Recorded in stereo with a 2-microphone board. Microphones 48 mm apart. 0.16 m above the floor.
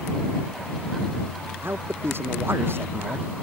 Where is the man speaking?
50° right (ahead or behind).